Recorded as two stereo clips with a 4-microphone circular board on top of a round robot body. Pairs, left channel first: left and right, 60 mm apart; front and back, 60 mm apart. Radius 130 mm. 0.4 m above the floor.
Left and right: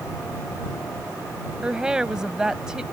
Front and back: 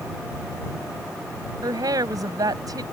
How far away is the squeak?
I don't hear a squeak.